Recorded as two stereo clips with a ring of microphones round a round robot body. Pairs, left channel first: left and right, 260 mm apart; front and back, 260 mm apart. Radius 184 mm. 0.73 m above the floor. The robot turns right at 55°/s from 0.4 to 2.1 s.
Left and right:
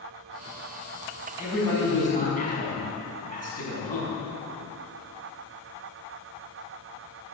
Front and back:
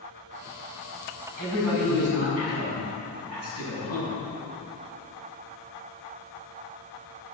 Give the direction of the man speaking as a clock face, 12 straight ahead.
6 o'clock.